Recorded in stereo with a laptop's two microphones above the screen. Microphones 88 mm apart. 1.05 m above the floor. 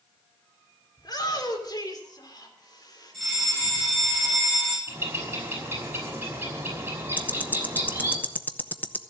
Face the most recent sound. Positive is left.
turn(degrees=20)  # may be behind; listen again after turning